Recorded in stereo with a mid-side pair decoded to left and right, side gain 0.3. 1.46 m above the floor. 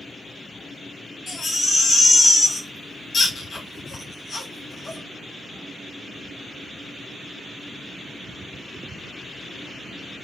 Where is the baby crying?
60° left, 1.8 m.